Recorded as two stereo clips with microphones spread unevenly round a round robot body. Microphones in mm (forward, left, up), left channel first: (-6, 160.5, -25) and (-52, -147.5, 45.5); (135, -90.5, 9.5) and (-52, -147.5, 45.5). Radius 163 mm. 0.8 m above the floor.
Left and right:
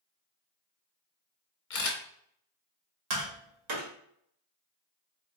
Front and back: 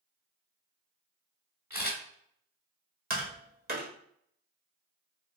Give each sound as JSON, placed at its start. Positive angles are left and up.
{"t": 1.7, "sound": "a camera shutter", "azimuth_deg": 110, "distance_m": 1.4}
{"t": 3.1, "sound": "tapping", "azimuth_deg": -125, "distance_m": 1.6}